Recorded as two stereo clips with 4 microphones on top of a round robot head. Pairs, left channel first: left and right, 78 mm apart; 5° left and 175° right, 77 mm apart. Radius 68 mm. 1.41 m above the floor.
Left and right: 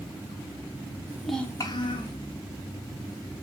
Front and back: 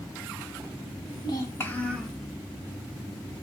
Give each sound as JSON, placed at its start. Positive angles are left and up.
{"t": 1.1, "sound": "a child speaking", "azimuth_deg": -30, "distance_m": 0.7}